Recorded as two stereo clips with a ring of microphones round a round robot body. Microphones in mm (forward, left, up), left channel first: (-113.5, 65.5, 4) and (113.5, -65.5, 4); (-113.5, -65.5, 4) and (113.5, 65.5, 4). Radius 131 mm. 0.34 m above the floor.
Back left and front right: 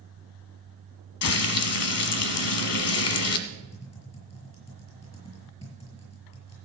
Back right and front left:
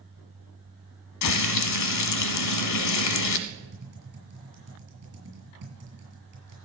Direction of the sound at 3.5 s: 80° left.